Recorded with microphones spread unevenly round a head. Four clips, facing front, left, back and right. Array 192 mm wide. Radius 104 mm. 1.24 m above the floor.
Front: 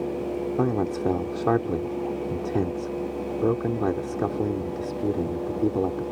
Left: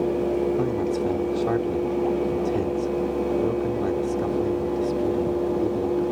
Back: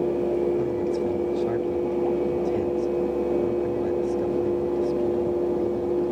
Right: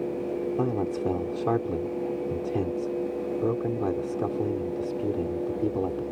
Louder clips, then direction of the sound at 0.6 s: Left 3 dB, even; straight ahead.